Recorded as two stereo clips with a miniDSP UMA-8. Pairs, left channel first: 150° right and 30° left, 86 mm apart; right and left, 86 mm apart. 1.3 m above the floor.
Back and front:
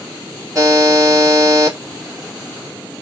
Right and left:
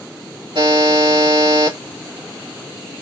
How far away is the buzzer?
About 2.5 m.